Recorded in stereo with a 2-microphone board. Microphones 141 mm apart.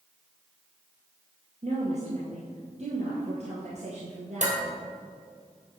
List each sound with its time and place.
1.6 s a woman speaking: 55° right (ahead or behind), 2 m
4.4 s dishes clattering: 60° right (ahead or behind), 2 m